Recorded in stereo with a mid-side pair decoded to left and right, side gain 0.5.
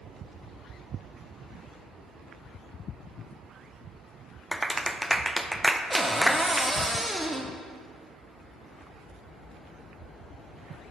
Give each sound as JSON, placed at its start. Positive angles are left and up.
{"t": 4.5, "sound": "a clap", "azimuth_deg": -5, "distance_m": 0.6}
{"t": 5.9, "sound": "a cupboard door", "azimuth_deg": -5, "distance_m": 1.0}